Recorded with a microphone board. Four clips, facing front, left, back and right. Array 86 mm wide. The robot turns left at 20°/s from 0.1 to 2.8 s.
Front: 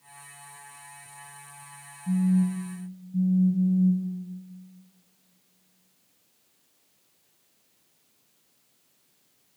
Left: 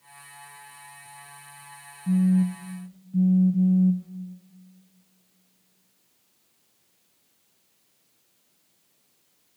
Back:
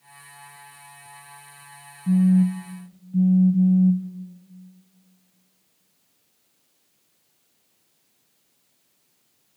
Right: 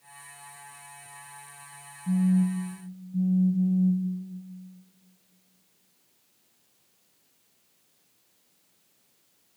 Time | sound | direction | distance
2.1 | a phone buzzing | 160° left | 0.5 m